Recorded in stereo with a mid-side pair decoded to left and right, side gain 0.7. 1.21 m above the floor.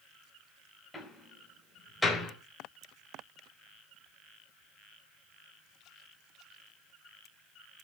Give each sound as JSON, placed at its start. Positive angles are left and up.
{"t": 0.9, "sound": "a door slam", "azimuth_deg": 10, "distance_m": 4.5}